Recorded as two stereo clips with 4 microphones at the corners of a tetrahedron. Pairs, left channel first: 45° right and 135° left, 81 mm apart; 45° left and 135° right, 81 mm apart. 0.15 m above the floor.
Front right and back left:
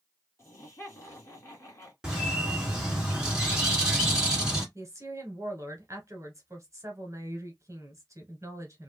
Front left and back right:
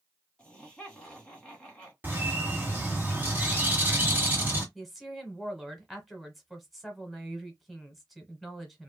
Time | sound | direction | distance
0.4 | laughter | 25° right | 2 m
2.0 | a bird | 160° right | 1.3 m
4.8 | a woman speaking | 135° left | 1.3 m